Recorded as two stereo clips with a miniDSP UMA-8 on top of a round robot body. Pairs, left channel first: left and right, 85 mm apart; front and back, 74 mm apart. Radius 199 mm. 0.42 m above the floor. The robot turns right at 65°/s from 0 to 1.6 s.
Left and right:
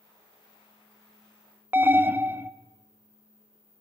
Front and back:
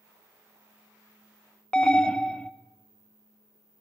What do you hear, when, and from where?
1.7 s an alarm: 65° right, 0.8 m